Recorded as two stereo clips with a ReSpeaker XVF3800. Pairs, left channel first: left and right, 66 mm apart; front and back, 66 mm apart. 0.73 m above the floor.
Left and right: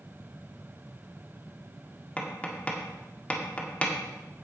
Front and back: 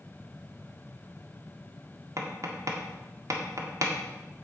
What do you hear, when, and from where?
2.2 s tapping: 155° left, 1.8 m